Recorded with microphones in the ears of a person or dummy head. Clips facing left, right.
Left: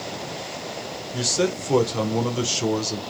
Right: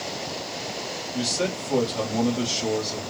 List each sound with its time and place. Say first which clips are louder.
1.1 s a man speaking: left 4 dB; 75° left (ahead or behind), 1.7 m